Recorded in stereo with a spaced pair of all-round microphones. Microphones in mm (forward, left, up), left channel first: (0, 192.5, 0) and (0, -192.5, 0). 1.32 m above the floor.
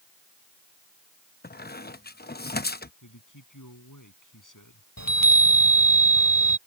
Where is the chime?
60° left (ahead or behind).